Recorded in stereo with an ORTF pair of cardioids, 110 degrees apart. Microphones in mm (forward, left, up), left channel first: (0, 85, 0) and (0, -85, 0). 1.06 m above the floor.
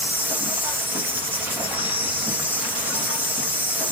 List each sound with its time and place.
0.0 s an insect: 10° right, 1.3 m